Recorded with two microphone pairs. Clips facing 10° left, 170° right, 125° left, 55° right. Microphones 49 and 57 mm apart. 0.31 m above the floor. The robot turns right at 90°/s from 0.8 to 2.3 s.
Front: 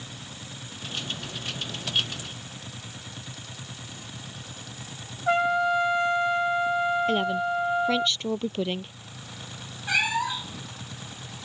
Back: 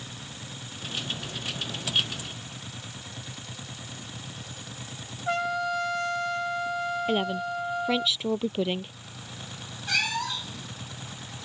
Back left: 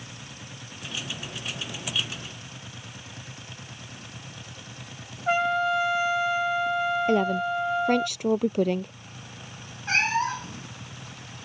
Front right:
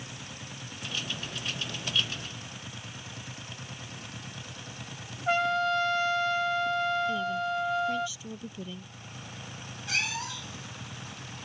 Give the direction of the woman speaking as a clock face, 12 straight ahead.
8 o'clock.